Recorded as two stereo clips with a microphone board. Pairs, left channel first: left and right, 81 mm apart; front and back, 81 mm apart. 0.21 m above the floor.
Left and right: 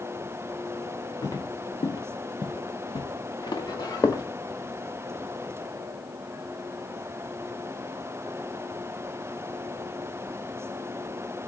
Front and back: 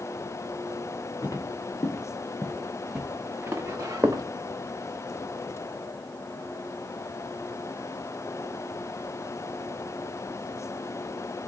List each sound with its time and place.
1.2 s footsteps: 45° left, 1.1 m; by 4.2 s 130° left, 1.2 m